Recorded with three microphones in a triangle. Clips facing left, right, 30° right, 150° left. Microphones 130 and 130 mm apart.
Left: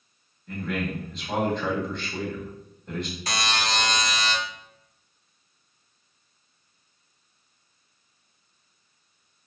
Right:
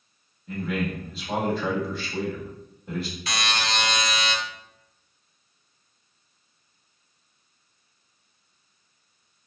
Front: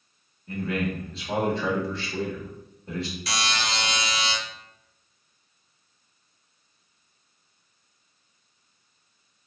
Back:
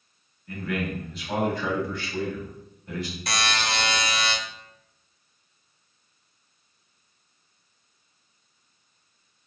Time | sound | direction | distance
0.5 | a man speaking | 10° right | 0.8 m
3.3 | a buzzer | 130° left | 0.6 m